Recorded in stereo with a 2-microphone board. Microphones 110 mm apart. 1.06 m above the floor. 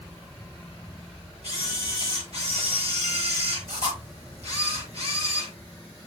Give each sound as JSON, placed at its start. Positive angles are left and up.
{"t": 1.4, "sound": "a camera shutter", "side_deg": -70, "distance_m": 7.0}